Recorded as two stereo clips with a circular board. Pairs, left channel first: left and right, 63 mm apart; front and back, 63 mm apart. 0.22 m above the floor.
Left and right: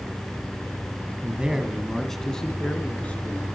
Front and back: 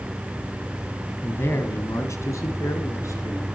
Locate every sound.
1.2 s a man speaking: 35° right, 1.6 m; by 3.5 s 25° left, 3.5 m